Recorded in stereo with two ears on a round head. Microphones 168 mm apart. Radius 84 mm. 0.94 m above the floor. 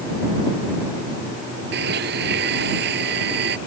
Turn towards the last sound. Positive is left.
turn(degrees=-60)  # may be behind; listen again after turning